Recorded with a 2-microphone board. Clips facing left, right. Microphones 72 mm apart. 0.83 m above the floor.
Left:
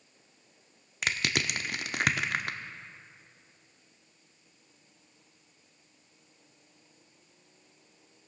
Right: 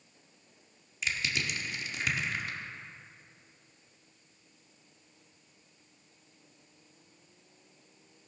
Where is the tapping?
No tapping in this recording.